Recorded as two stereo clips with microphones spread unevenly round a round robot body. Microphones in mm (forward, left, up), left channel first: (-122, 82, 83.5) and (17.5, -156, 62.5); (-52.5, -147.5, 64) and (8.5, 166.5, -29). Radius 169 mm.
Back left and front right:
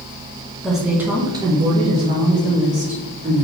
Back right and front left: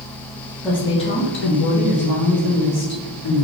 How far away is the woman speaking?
About 0.7 m.